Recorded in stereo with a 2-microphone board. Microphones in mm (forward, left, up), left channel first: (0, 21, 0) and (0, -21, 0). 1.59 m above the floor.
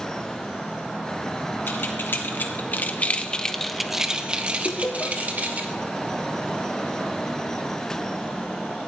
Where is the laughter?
55° left (ahead or behind), 0.6 m.